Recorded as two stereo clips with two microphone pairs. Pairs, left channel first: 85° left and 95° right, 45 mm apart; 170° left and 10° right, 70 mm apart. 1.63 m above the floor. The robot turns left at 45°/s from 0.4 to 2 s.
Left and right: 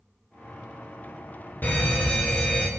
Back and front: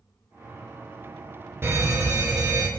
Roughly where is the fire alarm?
Ahead left.